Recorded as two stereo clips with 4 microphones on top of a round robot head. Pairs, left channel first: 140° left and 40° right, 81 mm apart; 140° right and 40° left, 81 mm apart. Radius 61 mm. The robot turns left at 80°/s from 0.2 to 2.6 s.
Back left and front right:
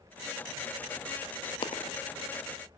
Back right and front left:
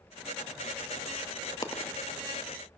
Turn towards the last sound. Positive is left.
turn(degrees=90)